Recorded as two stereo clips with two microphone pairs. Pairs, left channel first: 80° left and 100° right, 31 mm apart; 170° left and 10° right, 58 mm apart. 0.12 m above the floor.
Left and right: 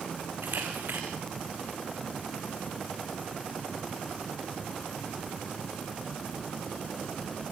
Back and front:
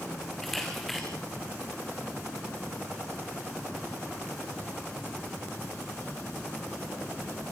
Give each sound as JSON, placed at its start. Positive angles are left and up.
{"t": 0.4, "sound": "a camera shutter", "azimuth_deg": -105, "distance_m": 4.0}